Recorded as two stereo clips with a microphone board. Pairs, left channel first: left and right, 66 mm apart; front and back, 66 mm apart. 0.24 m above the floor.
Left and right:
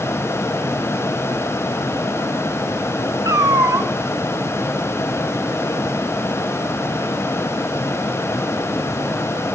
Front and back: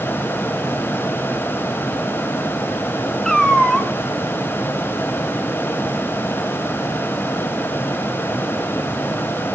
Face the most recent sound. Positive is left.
turn(degrees=-85)